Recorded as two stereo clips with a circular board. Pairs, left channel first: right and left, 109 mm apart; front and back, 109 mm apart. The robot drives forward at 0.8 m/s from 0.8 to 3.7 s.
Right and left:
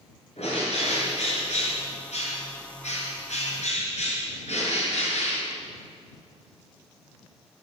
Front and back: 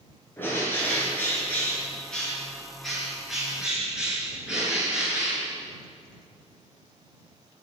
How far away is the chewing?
I don't hear chewing.